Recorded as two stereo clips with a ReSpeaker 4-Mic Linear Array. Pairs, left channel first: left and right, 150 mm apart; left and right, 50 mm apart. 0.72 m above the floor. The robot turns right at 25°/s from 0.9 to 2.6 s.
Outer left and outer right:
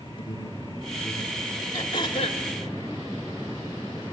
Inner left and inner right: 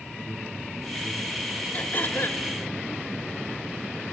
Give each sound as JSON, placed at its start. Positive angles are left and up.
{"t": 0.2, "sound": "an alarm", "side_deg": 35, "distance_m": 1.9}
{"t": 1.7, "sound": "throat clearing", "side_deg": 25, "distance_m": 1.3}